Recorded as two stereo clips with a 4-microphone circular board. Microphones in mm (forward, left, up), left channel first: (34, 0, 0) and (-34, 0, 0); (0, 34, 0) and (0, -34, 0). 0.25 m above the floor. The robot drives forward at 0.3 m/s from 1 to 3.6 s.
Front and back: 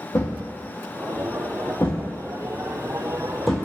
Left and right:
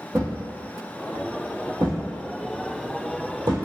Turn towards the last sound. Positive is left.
turn(degrees=-95)